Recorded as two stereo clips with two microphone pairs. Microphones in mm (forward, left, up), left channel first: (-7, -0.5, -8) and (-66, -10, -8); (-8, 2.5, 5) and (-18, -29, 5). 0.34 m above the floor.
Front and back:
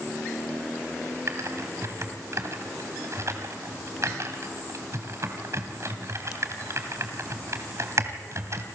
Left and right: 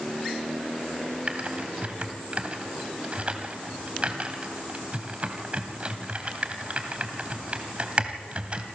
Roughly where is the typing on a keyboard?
Behind right.